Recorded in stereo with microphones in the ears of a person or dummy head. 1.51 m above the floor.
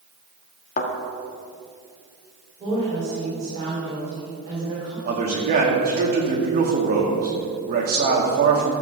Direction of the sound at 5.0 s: 50° right (ahead or behind).